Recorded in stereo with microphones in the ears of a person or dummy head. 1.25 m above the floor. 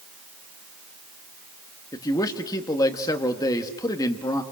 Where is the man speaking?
15° left (ahead or behind), 2 m.